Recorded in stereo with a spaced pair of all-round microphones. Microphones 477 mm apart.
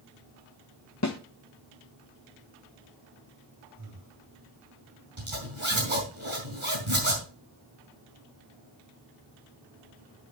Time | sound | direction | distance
1.0 | a snare drum | 35° left (ahead or behind) | 0.8 m
3.8 | breathing | 45° right (ahead or behind) | 4 m
5.2 | a zipper | 75° right (ahead or behind) | 4 m